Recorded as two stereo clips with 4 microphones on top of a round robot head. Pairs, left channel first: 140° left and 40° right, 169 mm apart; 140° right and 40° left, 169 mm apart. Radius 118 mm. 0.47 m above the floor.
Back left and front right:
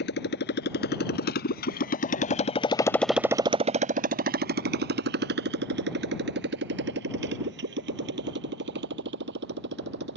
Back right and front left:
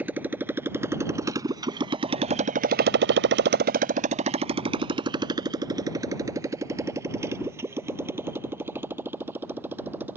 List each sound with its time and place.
0.0 s a motorcycle: 120° left; by 10.2 s 35° right